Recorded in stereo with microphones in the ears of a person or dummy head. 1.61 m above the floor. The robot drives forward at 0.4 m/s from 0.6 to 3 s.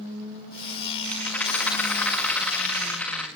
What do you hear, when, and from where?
1.1 s a rattle: 10° left (ahead or behind), 6 m